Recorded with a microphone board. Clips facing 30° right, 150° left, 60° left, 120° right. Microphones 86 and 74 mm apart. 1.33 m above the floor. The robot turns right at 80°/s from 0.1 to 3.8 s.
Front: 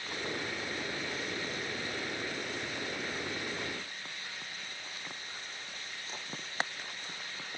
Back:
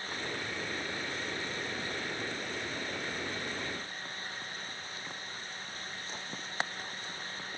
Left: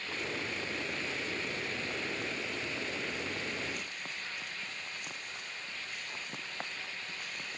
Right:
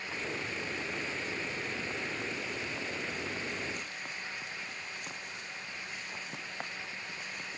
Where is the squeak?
I don't hear a squeak.